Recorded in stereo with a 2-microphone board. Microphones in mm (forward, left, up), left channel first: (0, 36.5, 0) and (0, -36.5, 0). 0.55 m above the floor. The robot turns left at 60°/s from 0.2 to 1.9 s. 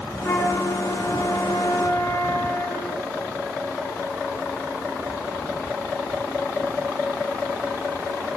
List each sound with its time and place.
0.2 s a flute: 130° left, 7 m; by 3.0 s 30° left, 7 m